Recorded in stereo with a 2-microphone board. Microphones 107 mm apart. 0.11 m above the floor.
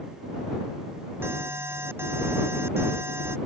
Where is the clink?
No clink in this recording.